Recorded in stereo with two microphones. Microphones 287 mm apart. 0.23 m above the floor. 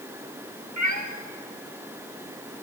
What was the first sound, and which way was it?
A cat meowing, 70° right (ahead or behind).